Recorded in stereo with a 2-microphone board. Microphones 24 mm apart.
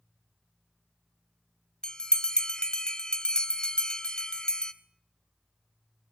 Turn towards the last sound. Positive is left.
turn(degrees=30)  # may be behind; listen again after turning